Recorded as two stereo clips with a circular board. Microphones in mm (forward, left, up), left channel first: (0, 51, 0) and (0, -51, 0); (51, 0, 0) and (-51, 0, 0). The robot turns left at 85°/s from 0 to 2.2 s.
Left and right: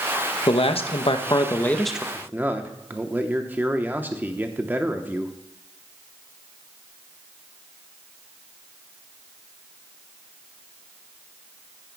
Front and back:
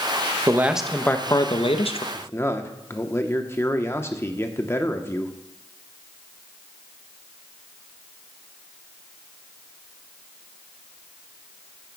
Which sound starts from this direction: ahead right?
A man speaking, at 2.1 s.